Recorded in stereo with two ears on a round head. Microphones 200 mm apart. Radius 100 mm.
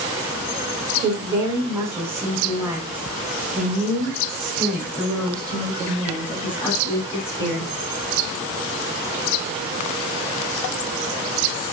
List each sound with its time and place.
1.0 s a woman speaking: 15° right (ahead or behind), 6 m; by 7.7 s 15° left (ahead or behind), 6.5 m